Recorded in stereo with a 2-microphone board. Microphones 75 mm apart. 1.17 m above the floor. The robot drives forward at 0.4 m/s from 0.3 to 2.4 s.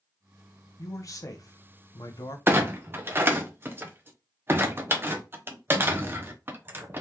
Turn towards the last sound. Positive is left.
turn(degrees=-30)  # may be behind; listen again after turning